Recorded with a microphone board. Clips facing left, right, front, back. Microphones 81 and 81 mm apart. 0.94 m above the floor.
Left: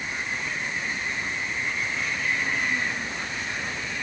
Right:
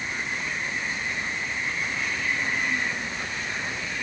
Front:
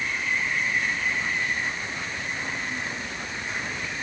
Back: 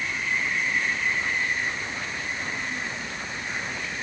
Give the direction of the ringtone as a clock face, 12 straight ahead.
I don't hear a ringtone.